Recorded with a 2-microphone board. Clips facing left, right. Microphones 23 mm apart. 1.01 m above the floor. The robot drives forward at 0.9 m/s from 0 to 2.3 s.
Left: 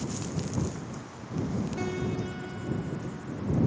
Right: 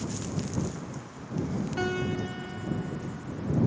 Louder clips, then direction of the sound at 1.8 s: Right 2 dB; 75° right (ahead or behind).